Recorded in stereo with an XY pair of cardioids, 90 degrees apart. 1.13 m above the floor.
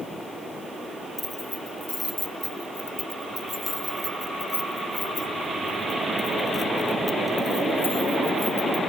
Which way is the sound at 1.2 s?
15° left.